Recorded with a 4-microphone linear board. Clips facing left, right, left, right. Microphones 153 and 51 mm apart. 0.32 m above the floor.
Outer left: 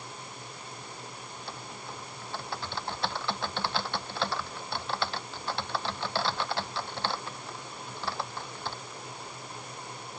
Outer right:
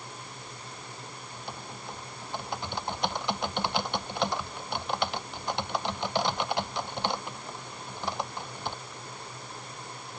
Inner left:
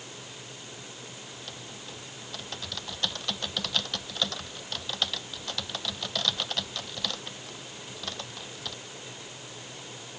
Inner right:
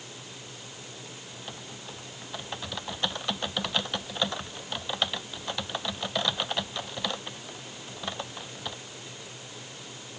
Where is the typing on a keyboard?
15° right (ahead or behind).